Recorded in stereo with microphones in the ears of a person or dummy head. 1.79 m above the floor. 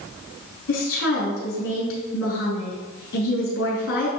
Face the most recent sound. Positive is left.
turn(degrees=60)  # may be behind; listen again after turning